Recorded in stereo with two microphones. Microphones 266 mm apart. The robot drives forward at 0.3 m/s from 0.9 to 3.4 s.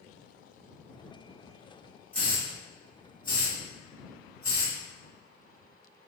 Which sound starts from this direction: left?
A hiss, at 2.1 s.